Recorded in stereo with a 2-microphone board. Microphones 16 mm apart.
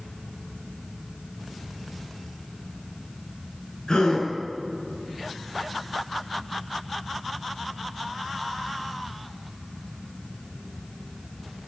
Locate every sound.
3.9 s a gasp: 60° left (ahead or behind), 5.5 m